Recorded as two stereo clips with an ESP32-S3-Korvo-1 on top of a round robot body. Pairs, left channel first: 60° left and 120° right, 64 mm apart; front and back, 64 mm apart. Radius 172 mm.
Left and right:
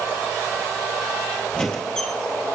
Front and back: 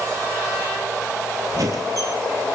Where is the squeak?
140° left, 0.6 m.